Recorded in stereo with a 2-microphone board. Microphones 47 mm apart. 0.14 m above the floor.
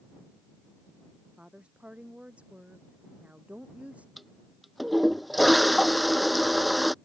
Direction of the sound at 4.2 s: Centre (ahead or behind).